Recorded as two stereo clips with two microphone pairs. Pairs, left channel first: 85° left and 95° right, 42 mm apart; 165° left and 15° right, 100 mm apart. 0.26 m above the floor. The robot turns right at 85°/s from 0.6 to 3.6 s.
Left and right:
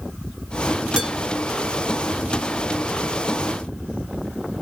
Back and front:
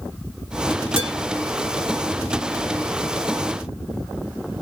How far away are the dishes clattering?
About 2 m.